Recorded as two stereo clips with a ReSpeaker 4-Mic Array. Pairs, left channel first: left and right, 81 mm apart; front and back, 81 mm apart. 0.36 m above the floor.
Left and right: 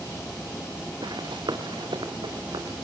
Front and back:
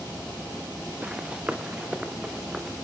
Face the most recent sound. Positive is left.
turn(degrees=-95)